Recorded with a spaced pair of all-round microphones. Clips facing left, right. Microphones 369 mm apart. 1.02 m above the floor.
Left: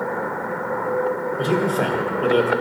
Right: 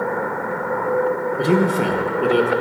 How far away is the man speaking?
About 0.8 m.